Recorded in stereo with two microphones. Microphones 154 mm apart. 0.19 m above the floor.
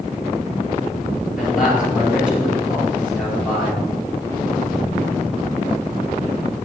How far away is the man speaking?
About 4 m.